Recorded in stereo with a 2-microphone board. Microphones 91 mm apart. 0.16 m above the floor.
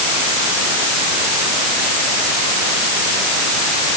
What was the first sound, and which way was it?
Only background noise.